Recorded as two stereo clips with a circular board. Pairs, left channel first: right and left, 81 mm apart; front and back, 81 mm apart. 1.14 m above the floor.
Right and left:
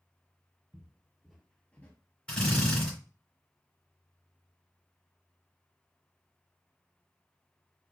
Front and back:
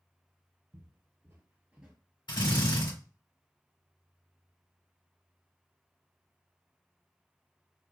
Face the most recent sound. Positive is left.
turn(degrees=-10)